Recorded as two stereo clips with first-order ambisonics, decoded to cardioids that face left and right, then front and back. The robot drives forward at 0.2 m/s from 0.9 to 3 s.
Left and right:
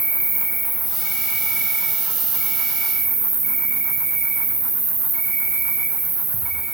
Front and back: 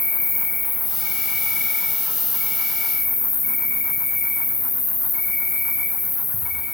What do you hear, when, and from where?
0.0 s an insect: 50° right, 1.4 m; by 6.8 s 65° right, 1.2 m